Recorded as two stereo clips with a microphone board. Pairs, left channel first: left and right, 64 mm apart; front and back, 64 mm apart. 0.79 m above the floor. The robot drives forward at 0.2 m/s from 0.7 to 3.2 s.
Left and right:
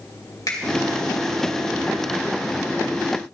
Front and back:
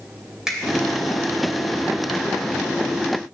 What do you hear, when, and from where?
0.5 s a finger snap: 100° left, 2 m